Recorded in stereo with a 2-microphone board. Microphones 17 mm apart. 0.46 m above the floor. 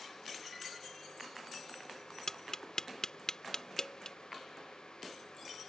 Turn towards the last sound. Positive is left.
turn(degrees=45)  # may be behind; listen again after turning